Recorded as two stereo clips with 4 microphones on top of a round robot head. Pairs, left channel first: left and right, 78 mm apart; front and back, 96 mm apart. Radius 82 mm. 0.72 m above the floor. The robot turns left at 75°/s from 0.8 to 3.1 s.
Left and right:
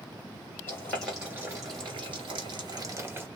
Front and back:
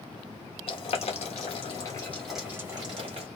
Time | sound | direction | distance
0.7 | boiling | 20° left | 1.2 m